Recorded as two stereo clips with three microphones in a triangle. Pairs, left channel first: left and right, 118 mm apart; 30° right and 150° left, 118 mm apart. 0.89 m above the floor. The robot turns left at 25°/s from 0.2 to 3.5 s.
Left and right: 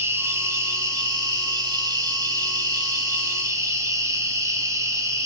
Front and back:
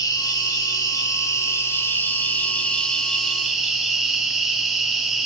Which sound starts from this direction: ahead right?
An insect, at 0.0 s.